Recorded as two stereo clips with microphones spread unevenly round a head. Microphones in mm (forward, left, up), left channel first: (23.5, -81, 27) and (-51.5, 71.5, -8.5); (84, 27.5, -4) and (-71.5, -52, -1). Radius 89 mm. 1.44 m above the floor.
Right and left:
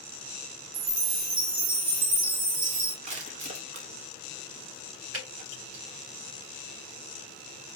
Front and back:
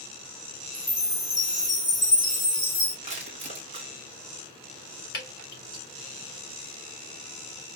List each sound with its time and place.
0.7 s a chime: 120° left, 1.4 m
3.0 s crushing: 165° left, 1.0 m
5.1 s dripping: 95° left, 3.5 m